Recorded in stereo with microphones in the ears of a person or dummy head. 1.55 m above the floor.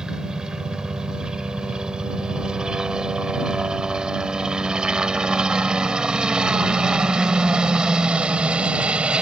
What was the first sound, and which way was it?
A helicopter, 5° right (ahead or behind).